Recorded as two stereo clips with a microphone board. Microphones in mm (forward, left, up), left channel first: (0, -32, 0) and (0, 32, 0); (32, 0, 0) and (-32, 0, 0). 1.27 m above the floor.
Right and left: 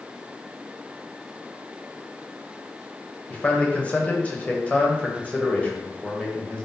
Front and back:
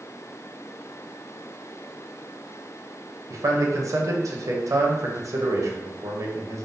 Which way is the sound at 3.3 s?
155° right.